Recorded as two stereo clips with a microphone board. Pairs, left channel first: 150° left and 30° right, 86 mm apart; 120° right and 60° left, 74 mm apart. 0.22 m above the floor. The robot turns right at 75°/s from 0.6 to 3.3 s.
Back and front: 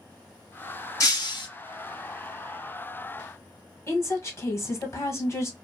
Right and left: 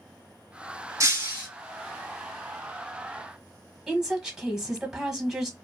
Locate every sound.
1.0 s breaking glass: 100° left, 1.8 m; by 1.5 s 140° left, 1.8 m
3.9 s a woman speaking: 135° left, 1.3 m